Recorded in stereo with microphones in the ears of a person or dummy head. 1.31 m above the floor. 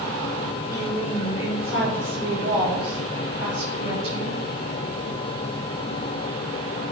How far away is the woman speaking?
About 4.5 m.